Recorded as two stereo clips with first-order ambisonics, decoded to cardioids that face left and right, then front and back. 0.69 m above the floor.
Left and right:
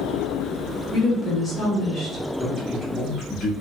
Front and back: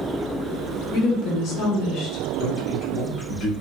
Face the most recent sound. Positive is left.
turn(degrees=35)